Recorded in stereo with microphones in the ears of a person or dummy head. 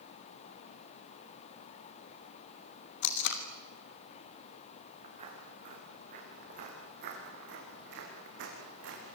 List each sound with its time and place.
3.0 s tape being pulled: 65° left (ahead or behind), 2.5 m
5.0 s footsteps: 35° right (ahead or behind), 7 m; by 9.1 s 75° right (ahead or behind), 6.5 m